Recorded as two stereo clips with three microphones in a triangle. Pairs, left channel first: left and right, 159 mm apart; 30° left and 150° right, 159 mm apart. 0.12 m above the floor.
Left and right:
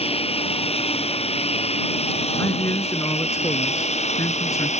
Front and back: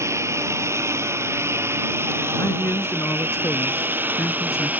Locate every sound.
0.0 s a lawn mower: 140° left; by 4.8 s 130° left
2.4 s a man speaking: 65° left